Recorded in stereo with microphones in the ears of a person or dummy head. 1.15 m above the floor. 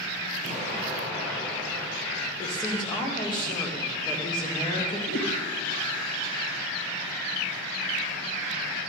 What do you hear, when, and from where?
0.4 s an explosion: 70° left (ahead or behind), 6.5 m
2.4 s a woman speaking: 25° left (ahead or behind), 2.5 m
5.1 s a whoosh: 65° left (ahead or behind), 4.5 m